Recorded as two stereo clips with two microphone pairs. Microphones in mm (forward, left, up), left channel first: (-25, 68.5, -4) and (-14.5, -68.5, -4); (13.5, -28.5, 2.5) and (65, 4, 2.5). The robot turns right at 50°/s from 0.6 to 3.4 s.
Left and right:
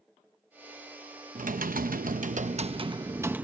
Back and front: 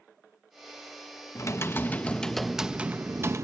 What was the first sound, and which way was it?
Typing on a keyboard, 110° right.